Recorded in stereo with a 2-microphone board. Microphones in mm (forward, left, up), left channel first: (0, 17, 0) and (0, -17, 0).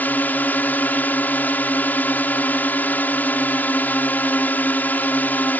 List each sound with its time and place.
0.0 s a drone: 65° left (ahead or behind)